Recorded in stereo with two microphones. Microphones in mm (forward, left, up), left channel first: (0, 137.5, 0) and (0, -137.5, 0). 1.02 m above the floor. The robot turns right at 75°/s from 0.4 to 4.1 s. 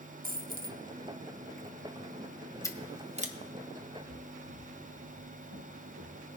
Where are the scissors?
10° left (ahead or behind), 0.9 m; by 3.4 s 35° right (ahead or behind), 0.9 m.